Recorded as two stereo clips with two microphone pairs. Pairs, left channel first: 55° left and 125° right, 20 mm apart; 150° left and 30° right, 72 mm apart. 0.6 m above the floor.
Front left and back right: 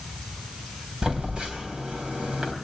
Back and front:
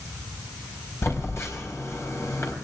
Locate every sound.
1.0 s a phone buzzing: 155° right, 4 m